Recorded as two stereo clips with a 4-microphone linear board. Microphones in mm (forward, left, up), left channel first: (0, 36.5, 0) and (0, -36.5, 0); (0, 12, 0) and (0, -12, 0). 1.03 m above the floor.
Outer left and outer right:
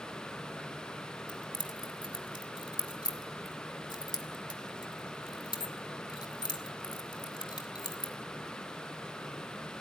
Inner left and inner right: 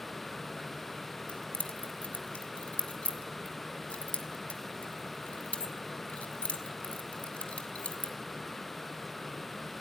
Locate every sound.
1.3 s keys jangling: 85° left, 2 m